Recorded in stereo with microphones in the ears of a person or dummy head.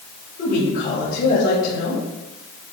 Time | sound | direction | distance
0.4 | a woman speaking | 50° left (ahead or behind) | 3 m